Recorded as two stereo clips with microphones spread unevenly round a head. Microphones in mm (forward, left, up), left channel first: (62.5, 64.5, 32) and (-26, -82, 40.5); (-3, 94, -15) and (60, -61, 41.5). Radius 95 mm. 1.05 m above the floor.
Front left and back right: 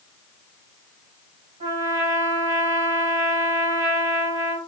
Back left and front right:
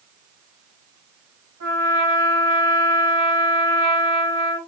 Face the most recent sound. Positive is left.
turn(degrees=-75)